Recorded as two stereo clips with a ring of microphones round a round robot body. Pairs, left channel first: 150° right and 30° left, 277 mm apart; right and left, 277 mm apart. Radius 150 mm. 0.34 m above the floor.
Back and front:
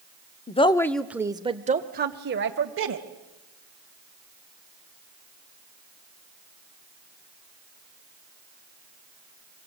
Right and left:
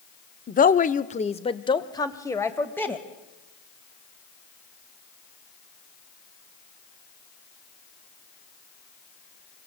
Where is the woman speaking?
110° right, 1.0 m; by 3.1 s 5° right, 2.0 m.